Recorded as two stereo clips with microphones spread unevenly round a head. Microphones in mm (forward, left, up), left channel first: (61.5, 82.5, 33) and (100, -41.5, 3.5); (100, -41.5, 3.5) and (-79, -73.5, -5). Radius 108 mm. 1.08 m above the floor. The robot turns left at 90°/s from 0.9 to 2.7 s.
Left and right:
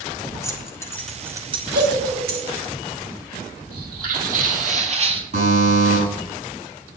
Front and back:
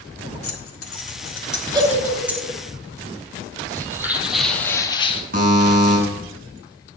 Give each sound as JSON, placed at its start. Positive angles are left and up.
{"t": 0.4, "sound": "keys jangling", "azimuth_deg": 40, "distance_m": 1.8}
{"t": 1.7, "sound": "a giggle", "azimuth_deg": -100, "distance_m": 2.5}
{"t": 3.7, "sound": "footsteps", "azimuth_deg": -100, "distance_m": 2.0}
{"t": 5.3, "sound": "a buzzer", "azimuth_deg": -130, "distance_m": 5.5}